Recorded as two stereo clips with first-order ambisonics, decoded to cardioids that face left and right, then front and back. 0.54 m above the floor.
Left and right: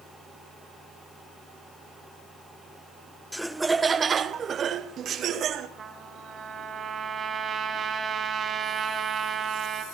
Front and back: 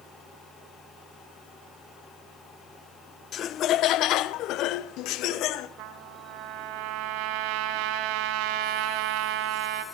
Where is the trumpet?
160° right, 3 m.